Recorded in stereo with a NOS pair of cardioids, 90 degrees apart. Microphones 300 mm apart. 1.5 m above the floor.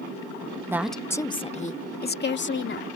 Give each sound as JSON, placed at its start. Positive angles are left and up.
{"t": 0.7, "sound": "a woman speaking", "azimuth_deg": -10}